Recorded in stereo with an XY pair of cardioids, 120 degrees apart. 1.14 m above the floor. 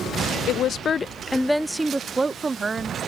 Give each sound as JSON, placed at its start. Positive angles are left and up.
{"t": 0.5, "sound": "a woman speaking", "azimuth_deg": 65}